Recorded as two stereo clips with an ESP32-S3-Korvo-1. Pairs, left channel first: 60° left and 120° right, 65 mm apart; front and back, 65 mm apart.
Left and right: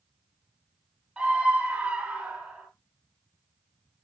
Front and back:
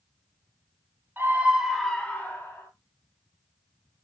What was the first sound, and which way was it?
A scream, straight behind.